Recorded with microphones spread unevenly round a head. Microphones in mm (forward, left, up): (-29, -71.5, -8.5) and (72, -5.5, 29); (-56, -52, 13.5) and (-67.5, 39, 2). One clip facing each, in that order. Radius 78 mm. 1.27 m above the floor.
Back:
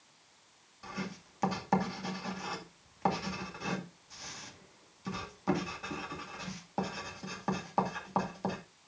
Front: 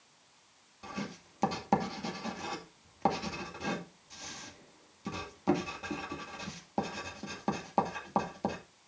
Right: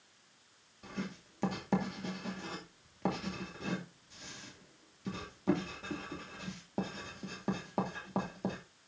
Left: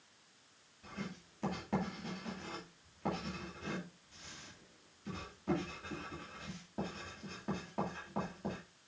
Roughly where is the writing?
Ahead right.